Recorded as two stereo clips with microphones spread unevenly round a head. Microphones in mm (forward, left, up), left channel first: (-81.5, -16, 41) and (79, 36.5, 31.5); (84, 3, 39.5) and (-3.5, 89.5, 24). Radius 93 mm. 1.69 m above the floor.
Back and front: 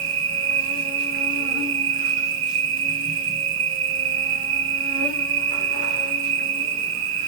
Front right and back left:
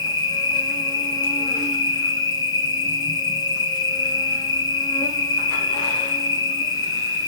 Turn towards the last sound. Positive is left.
turn(degrees=10)